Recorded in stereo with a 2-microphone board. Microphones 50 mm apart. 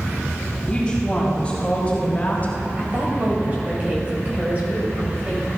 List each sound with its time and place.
0.7 s a woman speaking: 20° left (ahead or behind), 4 m; by 2.5 s 35° left (ahead or behind), 2.5 m
2.8 s a woman speaking: 30° right (ahead or behind), 3.5 m